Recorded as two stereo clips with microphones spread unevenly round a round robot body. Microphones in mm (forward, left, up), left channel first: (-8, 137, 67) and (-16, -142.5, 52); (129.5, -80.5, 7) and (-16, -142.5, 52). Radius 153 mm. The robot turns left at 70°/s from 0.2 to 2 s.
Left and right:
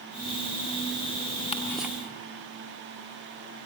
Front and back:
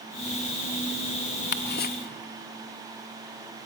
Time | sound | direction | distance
1.5 | ticking | 15° left | 0.8 m